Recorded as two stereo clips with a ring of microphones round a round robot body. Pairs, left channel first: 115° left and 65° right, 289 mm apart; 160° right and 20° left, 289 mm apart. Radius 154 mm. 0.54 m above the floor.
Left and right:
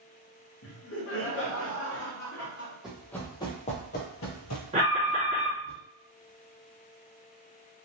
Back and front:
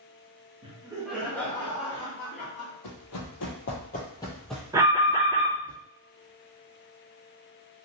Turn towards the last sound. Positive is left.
turn(degrees=-40)